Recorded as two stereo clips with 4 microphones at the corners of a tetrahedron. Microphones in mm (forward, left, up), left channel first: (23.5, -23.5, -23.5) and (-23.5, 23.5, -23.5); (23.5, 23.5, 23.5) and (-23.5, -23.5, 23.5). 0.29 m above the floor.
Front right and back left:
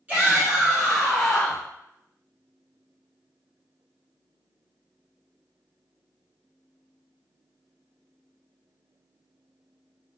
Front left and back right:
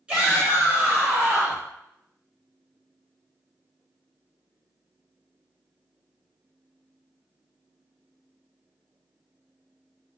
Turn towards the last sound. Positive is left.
turn(degrees=-120)